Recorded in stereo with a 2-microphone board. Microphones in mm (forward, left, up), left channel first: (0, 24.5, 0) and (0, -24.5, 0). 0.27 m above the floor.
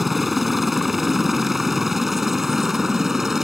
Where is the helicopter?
5° right (ahead or behind); by 3.5 s 10° right (ahead or behind).